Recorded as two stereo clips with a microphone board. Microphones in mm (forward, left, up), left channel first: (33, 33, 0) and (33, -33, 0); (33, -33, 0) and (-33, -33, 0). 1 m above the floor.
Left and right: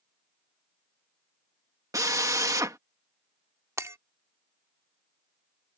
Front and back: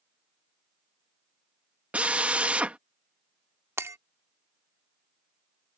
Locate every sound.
1.9 s a drill: 110° right
3.8 s breaking glass: 130° right